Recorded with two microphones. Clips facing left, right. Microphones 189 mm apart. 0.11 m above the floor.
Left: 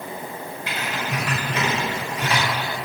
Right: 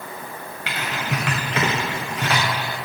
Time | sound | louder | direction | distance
0.7 | typing on a keyboard | right 2 dB | 85° right | 2 m